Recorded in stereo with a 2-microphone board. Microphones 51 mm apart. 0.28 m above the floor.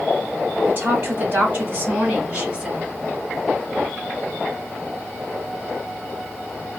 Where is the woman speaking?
45° right (ahead or behind), 1.8 m; by 2.9 s 30° right (ahead or behind), 1.2 m.